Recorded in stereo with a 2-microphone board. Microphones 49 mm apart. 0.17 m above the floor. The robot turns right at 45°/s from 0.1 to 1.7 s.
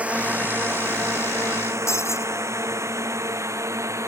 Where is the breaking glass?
75° left (ahead or behind).